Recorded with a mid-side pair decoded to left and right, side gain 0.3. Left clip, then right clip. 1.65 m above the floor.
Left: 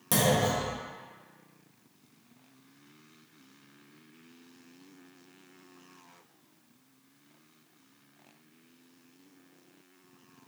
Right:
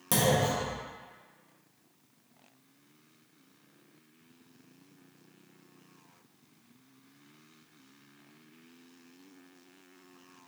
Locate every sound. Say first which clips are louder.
0.1 s a clunk: left 1 dB; 15° right, 1.3 m